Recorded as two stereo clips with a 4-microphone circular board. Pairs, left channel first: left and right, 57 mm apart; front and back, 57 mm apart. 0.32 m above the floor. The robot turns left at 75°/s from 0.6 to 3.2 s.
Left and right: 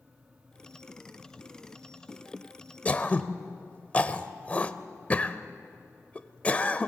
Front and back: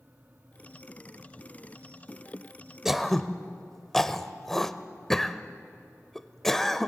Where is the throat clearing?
100° left, 0.7 m; by 6.9 s 75° left, 0.7 m.